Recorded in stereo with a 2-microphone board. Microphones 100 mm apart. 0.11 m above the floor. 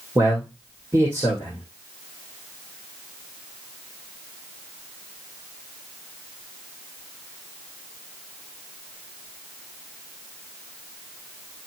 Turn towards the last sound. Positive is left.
turn(degrees=-25)  # may be behind; listen again after turning